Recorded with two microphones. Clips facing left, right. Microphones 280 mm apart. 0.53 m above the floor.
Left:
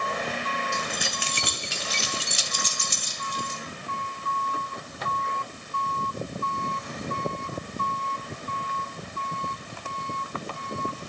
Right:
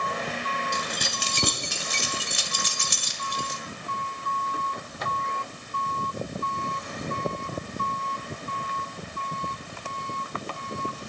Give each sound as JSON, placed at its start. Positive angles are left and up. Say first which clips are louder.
{"t": 0.7, "sound": "keys jangling", "louder": "left 1 dB", "side_deg": -40, "distance_m": 2.5}